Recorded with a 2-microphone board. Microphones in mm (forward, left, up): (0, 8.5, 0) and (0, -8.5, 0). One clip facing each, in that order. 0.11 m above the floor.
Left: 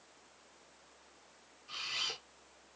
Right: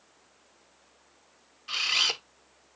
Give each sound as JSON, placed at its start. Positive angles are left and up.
{"t": 1.7, "sound": "a camera shutter", "side_deg": -50, "distance_m": 0.6}